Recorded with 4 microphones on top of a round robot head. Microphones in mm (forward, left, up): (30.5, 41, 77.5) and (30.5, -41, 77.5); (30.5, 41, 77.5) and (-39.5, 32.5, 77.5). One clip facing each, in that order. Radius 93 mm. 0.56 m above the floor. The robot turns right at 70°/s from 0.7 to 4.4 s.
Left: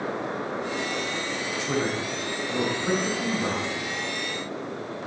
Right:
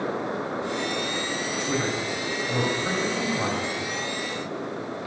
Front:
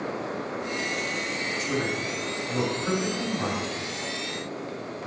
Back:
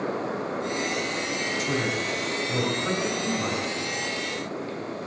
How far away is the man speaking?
About 4 m.